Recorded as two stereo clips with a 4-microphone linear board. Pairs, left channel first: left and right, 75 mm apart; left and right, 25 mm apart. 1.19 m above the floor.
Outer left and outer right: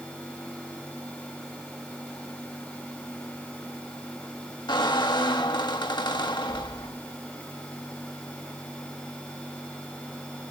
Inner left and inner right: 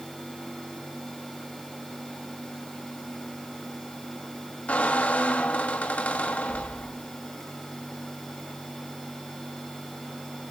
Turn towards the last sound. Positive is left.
turn(degrees=80)